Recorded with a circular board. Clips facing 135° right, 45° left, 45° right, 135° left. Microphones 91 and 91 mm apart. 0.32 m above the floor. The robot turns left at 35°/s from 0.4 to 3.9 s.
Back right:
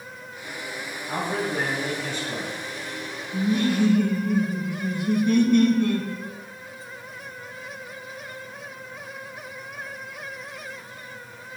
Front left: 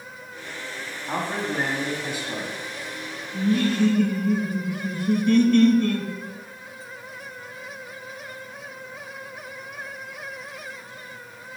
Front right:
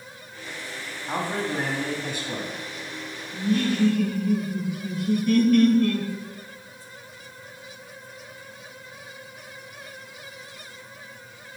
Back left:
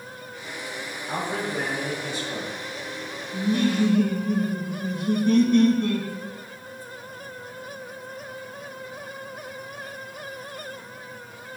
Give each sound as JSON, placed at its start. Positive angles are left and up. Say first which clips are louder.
{"t": 1.1, "sound": "a man speaking", "louder": "even, front right 1 dB", "azimuth_deg": 5, "distance_m": 2.5}
{"t": 3.3, "sound": "laughter", "louder": "even, back left 1 dB", "azimuth_deg": -170, "distance_m": 1.0}